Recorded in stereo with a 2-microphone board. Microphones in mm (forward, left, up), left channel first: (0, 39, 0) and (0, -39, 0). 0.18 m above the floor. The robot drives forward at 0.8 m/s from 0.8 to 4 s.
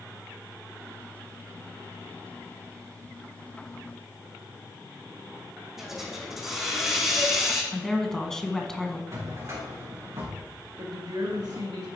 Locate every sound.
5.8 s a hiss: 5° right (ahead or behind), 3.5 m
7.7 s a woman speaking: 5° left (ahead or behind), 1.5 m
9.1 s a drawer: 45° right (ahead or behind), 4 m
10.8 s a woman speaking: 65° right (ahead or behind), 3 m